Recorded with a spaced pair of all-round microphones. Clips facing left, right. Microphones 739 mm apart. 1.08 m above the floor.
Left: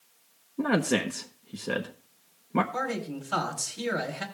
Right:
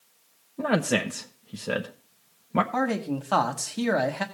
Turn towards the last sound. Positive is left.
turn(degrees=-75)  # may be behind; listen again after turning